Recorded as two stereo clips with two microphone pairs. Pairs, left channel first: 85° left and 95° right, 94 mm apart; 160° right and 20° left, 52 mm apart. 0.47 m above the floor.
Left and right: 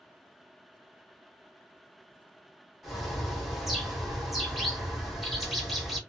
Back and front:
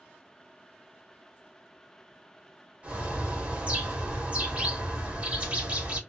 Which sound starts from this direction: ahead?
A bird, at 2.8 s.